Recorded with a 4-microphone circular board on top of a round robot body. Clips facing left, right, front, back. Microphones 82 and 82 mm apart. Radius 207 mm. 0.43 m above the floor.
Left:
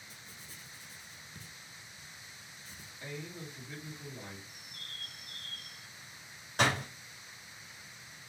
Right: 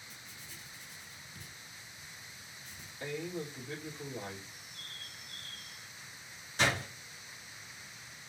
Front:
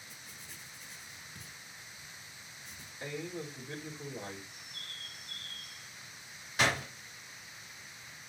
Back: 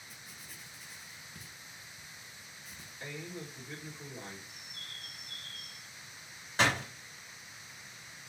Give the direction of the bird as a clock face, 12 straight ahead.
9 o'clock.